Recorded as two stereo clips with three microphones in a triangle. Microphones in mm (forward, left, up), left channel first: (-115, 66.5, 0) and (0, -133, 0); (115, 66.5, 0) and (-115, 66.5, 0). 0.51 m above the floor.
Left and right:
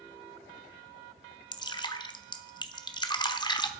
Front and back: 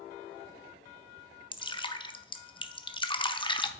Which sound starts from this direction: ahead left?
Dripping, at 1.5 s.